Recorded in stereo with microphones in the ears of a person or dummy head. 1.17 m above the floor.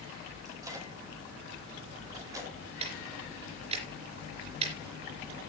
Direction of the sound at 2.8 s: 40° right (ahead or behind).